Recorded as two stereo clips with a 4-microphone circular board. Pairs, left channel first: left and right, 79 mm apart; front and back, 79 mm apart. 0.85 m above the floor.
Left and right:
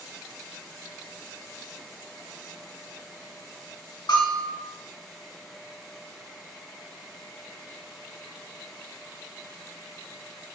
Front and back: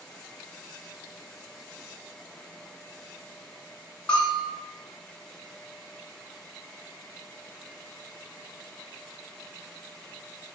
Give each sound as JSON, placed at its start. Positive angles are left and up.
{"t": 4.1, "sound": "a bell", "azimuth_deg": 80, "distance_m": 1.3}